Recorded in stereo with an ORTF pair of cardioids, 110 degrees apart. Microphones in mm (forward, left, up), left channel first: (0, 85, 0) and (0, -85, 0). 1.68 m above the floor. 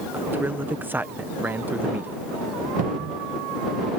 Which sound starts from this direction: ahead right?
A cupboard door, at 2.8 s.